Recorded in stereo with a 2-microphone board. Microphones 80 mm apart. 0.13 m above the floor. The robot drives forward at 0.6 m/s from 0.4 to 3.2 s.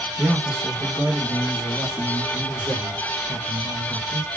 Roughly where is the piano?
No piano in this recording.